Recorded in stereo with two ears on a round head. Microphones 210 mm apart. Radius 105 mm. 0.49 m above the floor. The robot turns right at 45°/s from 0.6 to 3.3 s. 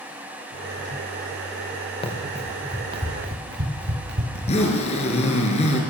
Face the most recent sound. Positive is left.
turn(degrees=30)  # may be behind; listen again after turning